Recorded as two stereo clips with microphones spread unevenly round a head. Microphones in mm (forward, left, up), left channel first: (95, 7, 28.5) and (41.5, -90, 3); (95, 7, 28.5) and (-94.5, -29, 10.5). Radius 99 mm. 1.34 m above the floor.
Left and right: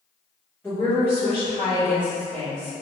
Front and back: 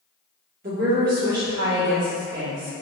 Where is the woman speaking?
145° left, 1.7 m.